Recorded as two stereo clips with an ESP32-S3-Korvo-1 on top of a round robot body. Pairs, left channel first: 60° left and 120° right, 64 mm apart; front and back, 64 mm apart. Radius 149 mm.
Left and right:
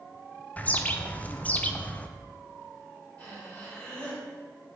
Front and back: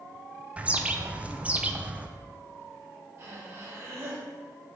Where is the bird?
120° left, 0.6 m.